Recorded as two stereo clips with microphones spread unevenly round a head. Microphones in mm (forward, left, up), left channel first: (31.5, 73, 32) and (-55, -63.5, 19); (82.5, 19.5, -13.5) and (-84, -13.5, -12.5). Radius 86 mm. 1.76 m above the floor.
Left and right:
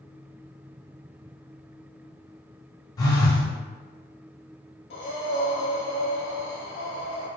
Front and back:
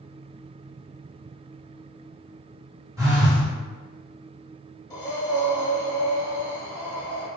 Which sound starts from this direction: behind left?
A phone buzzing, at 3.0 s.